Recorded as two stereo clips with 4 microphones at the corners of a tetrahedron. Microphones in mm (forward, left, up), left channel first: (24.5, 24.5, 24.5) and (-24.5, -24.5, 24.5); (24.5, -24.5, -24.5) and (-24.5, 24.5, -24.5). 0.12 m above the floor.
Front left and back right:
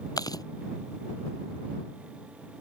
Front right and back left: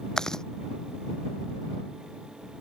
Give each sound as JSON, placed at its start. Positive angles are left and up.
{"t": 0.2, "sound": "chewing", "azimuth_deg": 35}